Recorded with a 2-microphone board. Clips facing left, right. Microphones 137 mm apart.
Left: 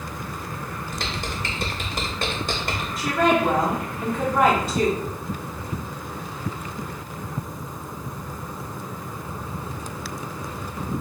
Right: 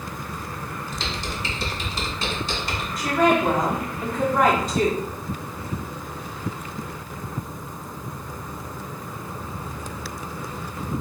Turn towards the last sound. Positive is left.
turn(degrees=0)  # may be behind; listen again after turning